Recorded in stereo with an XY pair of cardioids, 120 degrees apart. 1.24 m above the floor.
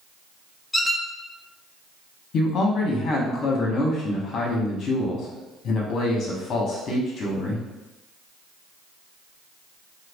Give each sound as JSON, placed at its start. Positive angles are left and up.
{"t": 0.7, "sound": "a squeak", "azimuth_deg": 10, "distance_m": 0.8}
{"t": 2.3, "sound": "a man speaking", "azimuth_deg": 55, "distance_m": 1.1}